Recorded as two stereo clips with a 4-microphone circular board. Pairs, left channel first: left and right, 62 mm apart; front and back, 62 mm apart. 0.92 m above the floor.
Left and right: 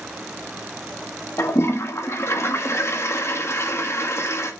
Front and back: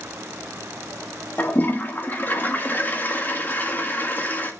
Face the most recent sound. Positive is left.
turn(degrees=55)